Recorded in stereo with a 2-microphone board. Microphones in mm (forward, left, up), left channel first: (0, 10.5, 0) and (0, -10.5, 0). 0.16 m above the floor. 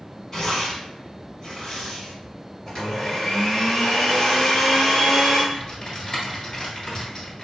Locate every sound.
0.3 s tearing paper: 20° left (ahead or behind), 1.2 m
2.7 s a blender: 25° left (ahead or behind), 1.7 m
5.5 s typing on a keyboard: 30° left (ahead or behind), 1.4 m